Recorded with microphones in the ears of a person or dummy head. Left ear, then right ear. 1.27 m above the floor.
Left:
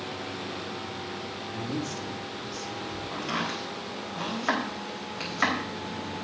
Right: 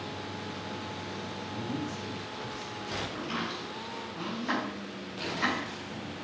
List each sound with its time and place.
1.5 s a man speaking: 75° left (ahead or behind), 3 m
3.1 s chopping: 45° left (ahead or behind), 4 m